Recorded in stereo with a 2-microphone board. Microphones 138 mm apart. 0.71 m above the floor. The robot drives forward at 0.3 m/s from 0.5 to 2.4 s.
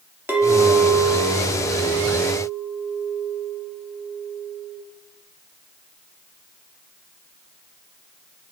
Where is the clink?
15° right (ahead or behind), 0.6 m; by 4.8 s 10° right (ahead or behind), 1.1 m.